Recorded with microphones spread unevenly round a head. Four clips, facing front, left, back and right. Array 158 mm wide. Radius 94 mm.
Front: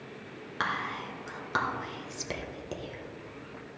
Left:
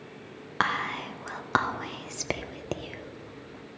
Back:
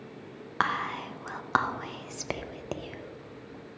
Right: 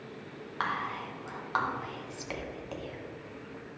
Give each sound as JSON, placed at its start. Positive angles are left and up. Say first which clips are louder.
{"t": 0.6, "sound": "whispering", "louder": "left 5 dB, back 4 dB", "azimuth_deg": 110, "distance_m": 0.5}